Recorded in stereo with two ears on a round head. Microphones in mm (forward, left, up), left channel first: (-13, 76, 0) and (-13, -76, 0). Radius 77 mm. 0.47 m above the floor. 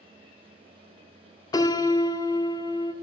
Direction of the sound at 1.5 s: 25° left (ahead or behind).